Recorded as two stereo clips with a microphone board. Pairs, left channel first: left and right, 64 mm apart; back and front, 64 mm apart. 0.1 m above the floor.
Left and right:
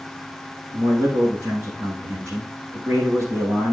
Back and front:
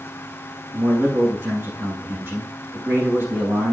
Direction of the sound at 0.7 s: 50° right.